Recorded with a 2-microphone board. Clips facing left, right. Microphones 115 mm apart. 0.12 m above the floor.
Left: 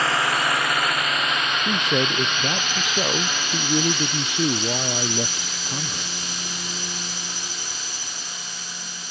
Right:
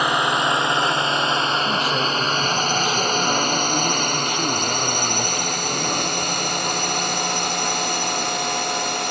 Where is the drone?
15° right (ahead or behind); by 9.1 s 65° right (ahead or behind).